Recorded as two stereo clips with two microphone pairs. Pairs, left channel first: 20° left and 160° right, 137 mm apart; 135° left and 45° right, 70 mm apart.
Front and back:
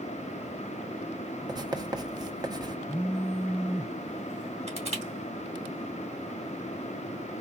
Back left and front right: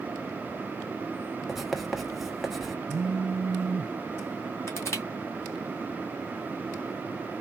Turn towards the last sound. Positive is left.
turn(degrees=175)